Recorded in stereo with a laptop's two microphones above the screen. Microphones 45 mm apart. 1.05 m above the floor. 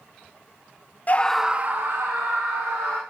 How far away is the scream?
About 0.6 m.